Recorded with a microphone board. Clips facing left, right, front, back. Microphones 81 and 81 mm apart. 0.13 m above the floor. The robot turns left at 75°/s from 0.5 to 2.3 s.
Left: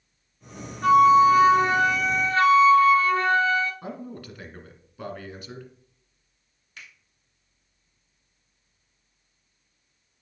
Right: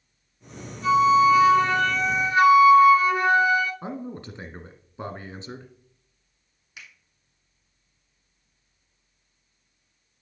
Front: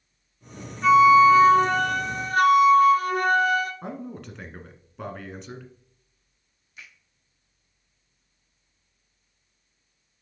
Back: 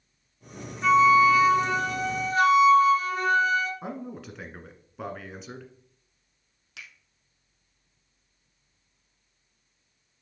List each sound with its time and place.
0.8 s a flute: 90° left, 1.0 m; by 3.7 s 20° right, 1.0 m
3.8 s a man speaking: 95° right, 1.4 m
6.8 s a finger snap: 175° right, 3 m